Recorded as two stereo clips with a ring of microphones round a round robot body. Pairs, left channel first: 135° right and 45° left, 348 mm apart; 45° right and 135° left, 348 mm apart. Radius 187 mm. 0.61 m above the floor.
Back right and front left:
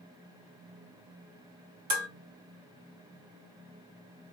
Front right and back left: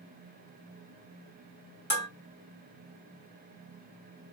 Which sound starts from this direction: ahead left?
Dishes clattering, at 1.9 s.